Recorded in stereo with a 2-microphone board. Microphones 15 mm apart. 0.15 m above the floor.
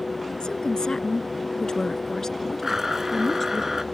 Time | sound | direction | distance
0.4 | a woman speaking | 50° left (ahead or behind) | ?
2.6 | a blender | 25° right (ahead or behind) | ?